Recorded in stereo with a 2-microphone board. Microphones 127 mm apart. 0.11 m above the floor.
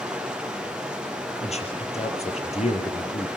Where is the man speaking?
60° left (ahead or behind), 3.5 m.